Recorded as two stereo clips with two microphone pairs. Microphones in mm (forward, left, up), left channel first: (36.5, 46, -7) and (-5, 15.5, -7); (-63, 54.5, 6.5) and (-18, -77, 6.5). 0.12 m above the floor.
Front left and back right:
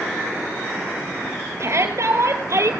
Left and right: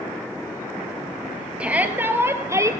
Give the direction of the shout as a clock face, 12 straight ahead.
5 o'clock.